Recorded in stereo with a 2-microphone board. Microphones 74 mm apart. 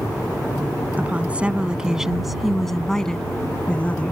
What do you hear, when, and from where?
1.0 s a woman speaking: 20° right (ahead or behind); by 4.1 s 20° left (ahead or behind)